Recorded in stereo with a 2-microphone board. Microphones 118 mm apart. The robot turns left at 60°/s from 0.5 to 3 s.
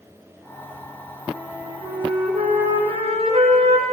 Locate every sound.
1.3 s a flute: 10° right, 5.5 m; by 3.8 s 110° right, 5.5 m